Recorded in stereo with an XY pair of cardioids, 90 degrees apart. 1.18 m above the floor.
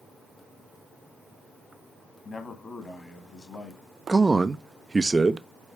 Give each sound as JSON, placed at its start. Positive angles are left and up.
{"t": 2.2, "sound": "a man speaking", "azimuth_deg": 35, "distance_m": 1.9}
{"t": 4.1, "sound": "a man speaking", "azimuth_deg": -25, "distance_m": 0.6}